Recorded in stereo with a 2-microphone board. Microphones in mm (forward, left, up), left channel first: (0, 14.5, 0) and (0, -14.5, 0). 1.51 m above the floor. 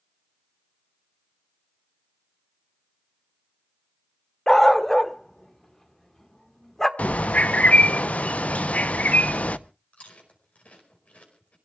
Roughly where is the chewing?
Left.